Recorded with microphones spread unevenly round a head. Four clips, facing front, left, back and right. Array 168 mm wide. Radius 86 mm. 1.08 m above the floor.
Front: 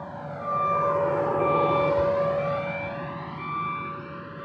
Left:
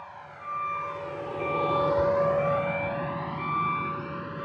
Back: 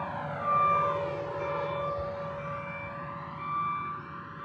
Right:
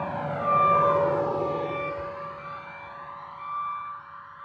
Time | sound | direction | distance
0.0 | a vehicle | 80° right | ?